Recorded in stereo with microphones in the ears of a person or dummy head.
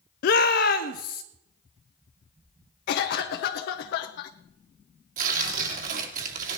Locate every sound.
0.2 s a shout: 50° left (ahead or behind), 0.9 m
2.9 s a cough: 45° left (ahead or behind), 1.1 m
5.2 s tearing paper: 50° right (ahead or behind), 2.5 m